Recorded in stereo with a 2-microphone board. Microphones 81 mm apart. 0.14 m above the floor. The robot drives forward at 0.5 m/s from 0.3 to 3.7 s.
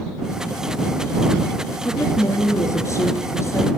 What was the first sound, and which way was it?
A woman speaking, 45° left (ahead or behind).